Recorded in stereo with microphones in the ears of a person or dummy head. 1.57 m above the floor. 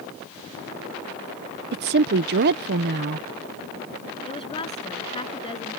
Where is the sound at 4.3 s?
25° left (ahead or behind).